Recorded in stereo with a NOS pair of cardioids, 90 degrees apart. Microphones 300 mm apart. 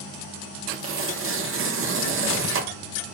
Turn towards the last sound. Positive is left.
turn(degrees=-45)